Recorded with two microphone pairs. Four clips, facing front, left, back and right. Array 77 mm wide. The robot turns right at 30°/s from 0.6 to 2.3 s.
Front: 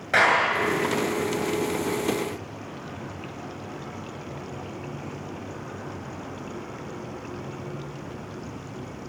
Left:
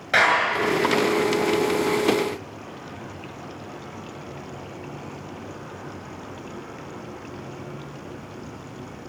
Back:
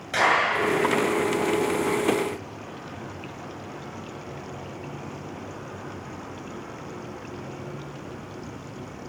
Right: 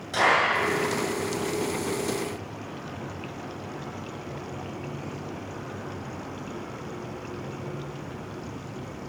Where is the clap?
40° left, 8 m.